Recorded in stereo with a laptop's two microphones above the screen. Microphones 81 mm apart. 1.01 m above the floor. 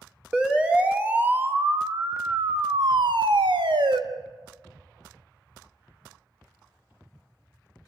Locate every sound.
0.3 s a siren: 10° right (ahead or behind), 2.5 m; by 4.0 s 70° right (ahead or behind), 1.7 m